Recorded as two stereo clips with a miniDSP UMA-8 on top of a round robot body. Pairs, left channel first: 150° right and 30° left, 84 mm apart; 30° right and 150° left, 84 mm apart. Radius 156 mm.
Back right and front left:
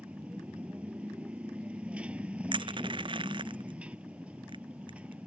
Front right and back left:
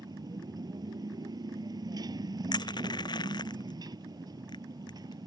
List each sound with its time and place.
0.0 s a motorcycle: 105° left
2.5 s crushing: 5° left